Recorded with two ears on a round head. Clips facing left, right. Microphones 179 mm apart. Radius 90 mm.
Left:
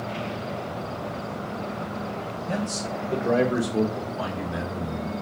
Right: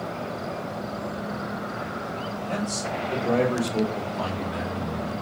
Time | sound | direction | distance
2.5 | a man speaking | 15° left (ahead or behind) | 0.8 m